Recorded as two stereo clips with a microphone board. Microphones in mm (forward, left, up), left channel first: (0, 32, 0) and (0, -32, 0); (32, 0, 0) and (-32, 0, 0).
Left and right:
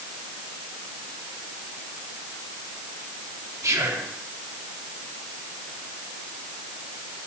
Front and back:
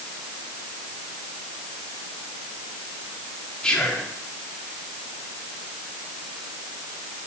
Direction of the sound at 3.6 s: 75° right.